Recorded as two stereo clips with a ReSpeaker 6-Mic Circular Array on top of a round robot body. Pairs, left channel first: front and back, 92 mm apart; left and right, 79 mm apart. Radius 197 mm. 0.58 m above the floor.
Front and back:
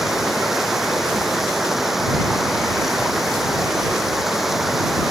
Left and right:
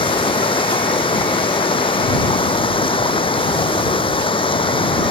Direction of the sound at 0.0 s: 90° left.